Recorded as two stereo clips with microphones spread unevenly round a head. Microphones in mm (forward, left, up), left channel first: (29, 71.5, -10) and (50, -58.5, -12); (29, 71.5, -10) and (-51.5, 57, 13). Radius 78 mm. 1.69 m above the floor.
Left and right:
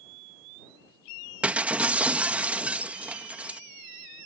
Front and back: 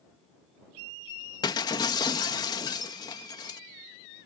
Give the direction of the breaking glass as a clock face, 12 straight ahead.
12 o'clock.